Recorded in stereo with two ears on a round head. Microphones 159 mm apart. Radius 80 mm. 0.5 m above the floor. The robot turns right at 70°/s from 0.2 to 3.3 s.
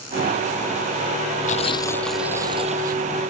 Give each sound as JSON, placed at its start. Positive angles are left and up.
{"t": 1.5, "sound": "tearing paper", "azimuth_deg": 135}